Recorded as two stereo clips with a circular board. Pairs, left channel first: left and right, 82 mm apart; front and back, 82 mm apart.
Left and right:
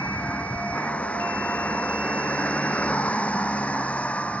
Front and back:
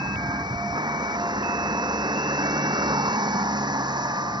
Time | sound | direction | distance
0.0 | a vehicle | 160° left | ?